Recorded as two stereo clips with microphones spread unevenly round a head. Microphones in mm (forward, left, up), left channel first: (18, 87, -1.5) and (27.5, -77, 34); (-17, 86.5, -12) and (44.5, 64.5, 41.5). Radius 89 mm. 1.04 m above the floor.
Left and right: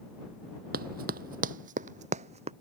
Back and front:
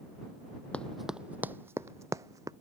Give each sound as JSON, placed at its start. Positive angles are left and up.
{"t": 0.7, "sound": "running footsteps", "azimuth_deg": -95}